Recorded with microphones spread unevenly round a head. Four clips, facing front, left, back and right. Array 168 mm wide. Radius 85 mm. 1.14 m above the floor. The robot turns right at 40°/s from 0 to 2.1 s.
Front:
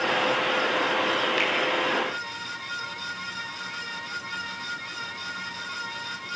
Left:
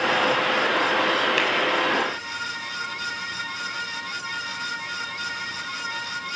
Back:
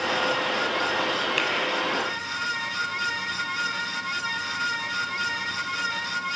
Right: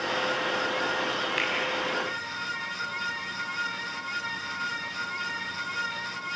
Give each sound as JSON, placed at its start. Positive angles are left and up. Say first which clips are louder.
{"t": 1.4, "sound": "a finger snap", "louder": "left 7 dB, front 1 dB", "azimuth_deg": 110, "distance_m": 5.5}